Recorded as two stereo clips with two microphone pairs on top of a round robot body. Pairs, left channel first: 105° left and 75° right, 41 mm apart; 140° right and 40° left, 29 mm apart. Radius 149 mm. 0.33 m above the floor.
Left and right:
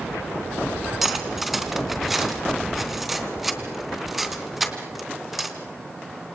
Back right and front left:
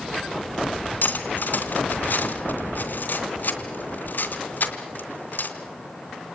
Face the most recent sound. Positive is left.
turn(degrees=-155)